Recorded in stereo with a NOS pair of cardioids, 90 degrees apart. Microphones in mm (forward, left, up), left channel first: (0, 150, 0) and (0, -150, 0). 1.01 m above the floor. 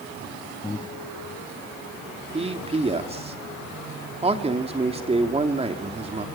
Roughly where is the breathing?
Ahead.